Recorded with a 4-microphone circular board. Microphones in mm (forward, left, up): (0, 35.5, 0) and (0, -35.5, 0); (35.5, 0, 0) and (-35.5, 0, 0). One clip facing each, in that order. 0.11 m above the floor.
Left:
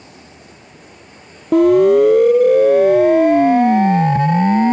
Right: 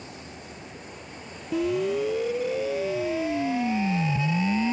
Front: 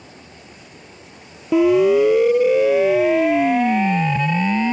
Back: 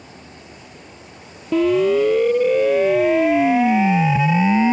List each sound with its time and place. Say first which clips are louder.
1.5 s a siren: left 16 dB, front 2 dB; 75° left; by 4.7 s 110° left